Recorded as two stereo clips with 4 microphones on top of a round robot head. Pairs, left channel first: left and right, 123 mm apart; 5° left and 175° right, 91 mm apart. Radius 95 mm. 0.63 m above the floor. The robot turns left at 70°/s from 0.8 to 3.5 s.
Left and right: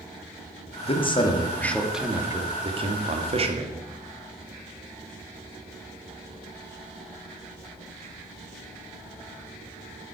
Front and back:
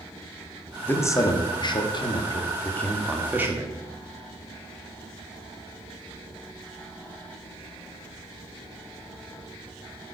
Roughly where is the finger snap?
I don't hear a finger snap.